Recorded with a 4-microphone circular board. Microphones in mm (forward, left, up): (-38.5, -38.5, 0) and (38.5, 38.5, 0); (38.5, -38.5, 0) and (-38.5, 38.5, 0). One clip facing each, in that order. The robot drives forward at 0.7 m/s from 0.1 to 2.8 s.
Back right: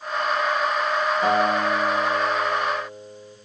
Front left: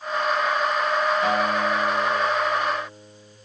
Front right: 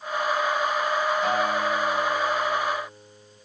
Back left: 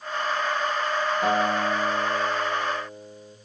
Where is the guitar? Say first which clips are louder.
Back right 2 dB, back left 1 dB; 170° left, 2 m; by 3.4 s 175° left, 3 m.